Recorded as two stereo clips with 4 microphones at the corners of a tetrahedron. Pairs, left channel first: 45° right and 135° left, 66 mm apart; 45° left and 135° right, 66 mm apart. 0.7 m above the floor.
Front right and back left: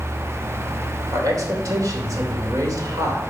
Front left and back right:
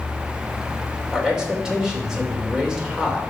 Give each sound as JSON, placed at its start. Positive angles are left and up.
{"t": 1.1, "sound": "a man speaking", "azimuth_deg": 145, "distance_m": 3.0}